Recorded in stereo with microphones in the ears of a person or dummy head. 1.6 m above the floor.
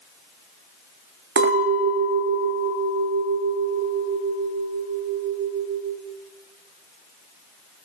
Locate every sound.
1.4 s a clink: 60° right (ahead or behind), 1.2 m